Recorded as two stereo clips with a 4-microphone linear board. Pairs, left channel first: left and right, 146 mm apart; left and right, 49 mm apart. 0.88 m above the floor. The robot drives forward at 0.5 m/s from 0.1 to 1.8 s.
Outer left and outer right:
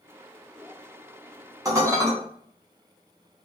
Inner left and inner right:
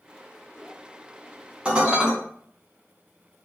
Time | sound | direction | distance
1.6 | dishes clattering | 20° right (ahead or behind) | 0.7 m